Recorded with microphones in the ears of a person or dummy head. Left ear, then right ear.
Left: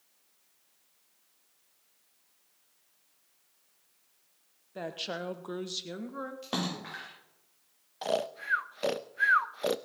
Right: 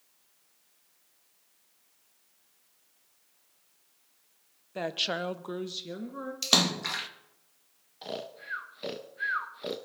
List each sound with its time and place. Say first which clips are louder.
4.8 s a woman speaking: right 6 dB; 25° right (ahead or behind), 0.9 m; by 6.3 s 15° left (ahead or behind), 1.6 m
6.4 s a splash: right 13 dB; 70° right (ahead or behind), 2 m
8.0 s snoring: left 7 dB; 30° left (ahead or behind), 0.5 m